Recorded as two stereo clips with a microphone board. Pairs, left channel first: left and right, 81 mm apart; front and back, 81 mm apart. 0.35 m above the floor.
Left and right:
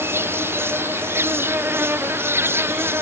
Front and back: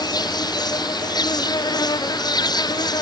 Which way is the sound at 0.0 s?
30° right.